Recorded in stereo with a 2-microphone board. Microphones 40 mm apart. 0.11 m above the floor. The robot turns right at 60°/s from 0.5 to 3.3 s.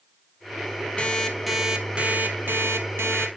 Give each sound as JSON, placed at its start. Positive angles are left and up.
{"t": 1.0, "sound": "an alarm clock", "azimuth_deg": 150, "distance_m": 1.2}